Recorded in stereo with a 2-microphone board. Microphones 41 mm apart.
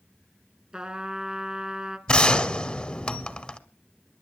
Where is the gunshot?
20° left (ahead or behind), 1.3 m.